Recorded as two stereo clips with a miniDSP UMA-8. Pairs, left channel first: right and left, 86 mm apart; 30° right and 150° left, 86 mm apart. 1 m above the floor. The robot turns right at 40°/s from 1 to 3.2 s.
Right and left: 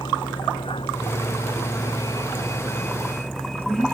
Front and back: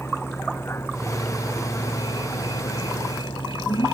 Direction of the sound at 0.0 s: 90° right.